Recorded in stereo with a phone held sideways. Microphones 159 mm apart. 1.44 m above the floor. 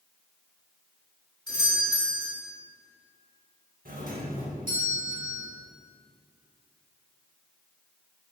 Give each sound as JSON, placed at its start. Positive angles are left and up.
{"t": 1.5, "sound": "a doorbell", "side_deg": 25, "distance_m": 3.5}
{"t": 3.9, "sound": "a doorbell", "side_deg": -60, "distance_m": 2.0}